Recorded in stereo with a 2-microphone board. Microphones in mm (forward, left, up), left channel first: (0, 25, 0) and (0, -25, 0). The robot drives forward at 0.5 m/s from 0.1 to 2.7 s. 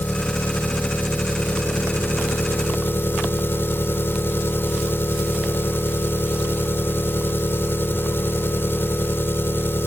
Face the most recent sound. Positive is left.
turn(degrees=55)  # may be behind; listen again after turning